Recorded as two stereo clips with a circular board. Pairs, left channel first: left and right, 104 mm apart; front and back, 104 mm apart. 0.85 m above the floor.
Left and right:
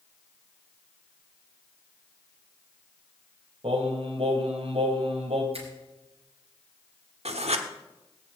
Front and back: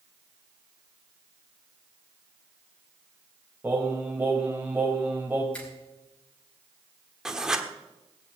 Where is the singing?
110° right, 2.5 m.